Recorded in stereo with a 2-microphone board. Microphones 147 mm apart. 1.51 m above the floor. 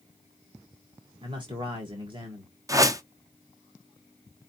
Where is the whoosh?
20° right (ahead or behind), 0.6 m.